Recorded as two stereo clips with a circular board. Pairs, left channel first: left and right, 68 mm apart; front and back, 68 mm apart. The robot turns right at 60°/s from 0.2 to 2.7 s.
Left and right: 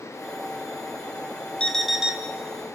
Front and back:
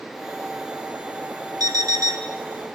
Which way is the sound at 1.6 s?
165° left.